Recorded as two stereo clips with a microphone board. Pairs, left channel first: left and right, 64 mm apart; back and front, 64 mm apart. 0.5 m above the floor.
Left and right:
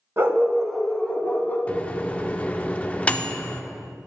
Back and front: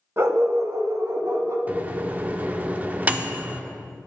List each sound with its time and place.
0.2 s a dog barking: 45° right, 0.8 m; by 1.6 s 35° left, 1.4 m
1.7 s a microwave: 40° left, 0.5 m